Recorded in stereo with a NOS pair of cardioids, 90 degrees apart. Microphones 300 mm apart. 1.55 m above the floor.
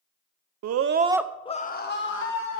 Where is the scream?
65° right, 0.7 m; by 2.6 s 45° left, 2 m.